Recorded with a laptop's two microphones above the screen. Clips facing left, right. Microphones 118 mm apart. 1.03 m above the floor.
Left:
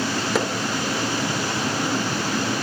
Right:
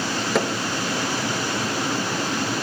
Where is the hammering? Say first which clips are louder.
Right 2 dB; centre (ahead or behind), 3 m.